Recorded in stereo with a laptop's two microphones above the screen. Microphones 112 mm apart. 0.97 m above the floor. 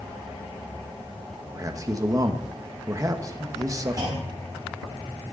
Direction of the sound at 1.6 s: 30° right (ahead or behind).